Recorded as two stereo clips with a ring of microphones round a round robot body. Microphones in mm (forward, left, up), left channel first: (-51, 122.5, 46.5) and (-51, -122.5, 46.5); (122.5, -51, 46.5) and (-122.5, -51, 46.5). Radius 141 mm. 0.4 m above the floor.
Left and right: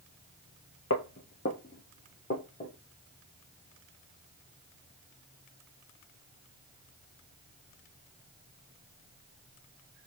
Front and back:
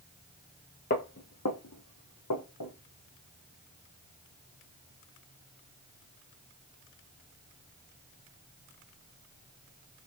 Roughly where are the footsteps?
Ahead left.